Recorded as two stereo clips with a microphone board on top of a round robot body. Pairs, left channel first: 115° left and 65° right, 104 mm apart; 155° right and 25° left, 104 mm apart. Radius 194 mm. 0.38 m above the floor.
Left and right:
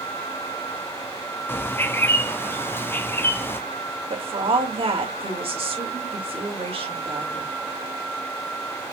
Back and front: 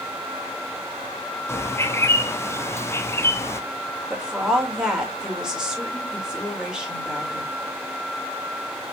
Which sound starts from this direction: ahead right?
A woman speaking, at 4.1 s.